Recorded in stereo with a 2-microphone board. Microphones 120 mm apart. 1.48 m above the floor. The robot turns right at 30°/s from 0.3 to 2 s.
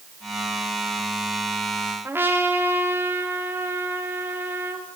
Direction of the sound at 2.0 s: 20° right (ahead or behind).